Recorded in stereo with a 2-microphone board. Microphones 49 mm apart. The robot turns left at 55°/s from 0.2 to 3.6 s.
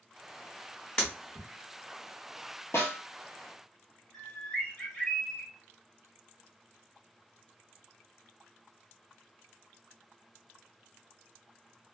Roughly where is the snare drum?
Left.